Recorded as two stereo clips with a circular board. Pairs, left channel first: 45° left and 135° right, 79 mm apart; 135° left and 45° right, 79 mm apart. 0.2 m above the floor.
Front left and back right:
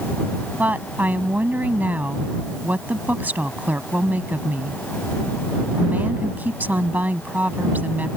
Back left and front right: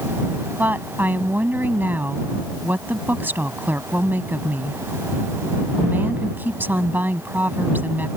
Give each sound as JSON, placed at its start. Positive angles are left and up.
{"t": 0.6, "sound": "a woman speaking", "azimuth_deg": -85}